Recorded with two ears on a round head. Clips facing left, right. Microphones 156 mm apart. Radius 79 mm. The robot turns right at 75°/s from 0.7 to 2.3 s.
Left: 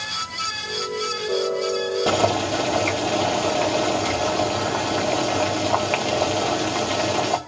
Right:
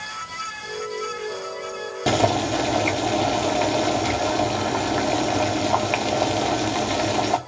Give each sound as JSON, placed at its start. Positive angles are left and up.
{"t": 2.1, "sound": "boiling", "side_deg": -15, "distance_m": 1.1}